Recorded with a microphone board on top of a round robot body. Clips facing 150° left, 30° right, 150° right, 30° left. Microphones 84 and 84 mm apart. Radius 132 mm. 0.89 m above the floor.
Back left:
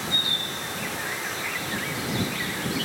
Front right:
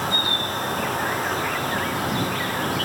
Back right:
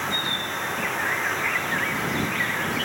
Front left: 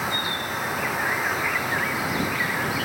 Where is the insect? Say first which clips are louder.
Front right 7 dB, front left 1 dB; 50° right.